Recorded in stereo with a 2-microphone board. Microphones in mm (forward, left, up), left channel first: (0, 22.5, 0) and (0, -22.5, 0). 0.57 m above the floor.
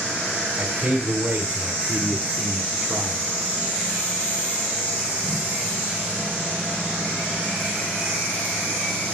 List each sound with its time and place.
0.6 s a man speaking: 60° right (ahead or behind), 2.0 m; by 3.2 s 5° right (ahead or behind), 1.0 m